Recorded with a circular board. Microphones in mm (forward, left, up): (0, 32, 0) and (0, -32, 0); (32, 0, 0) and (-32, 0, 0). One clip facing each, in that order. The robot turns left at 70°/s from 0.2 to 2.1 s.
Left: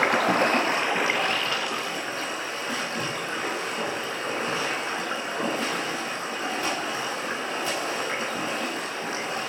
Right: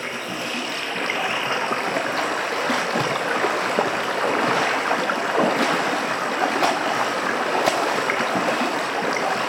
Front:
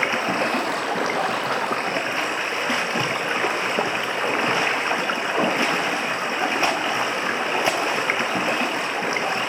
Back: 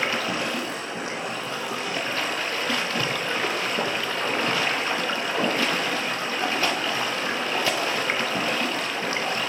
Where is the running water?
65° left, 1.8 m; by 9.5 s 70° right, 1.8 m.